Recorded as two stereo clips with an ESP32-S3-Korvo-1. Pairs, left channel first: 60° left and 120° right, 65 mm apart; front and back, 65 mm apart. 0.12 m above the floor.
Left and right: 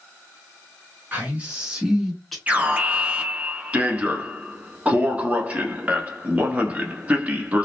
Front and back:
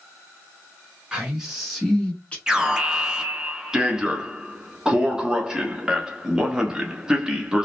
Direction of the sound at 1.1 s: 115° right.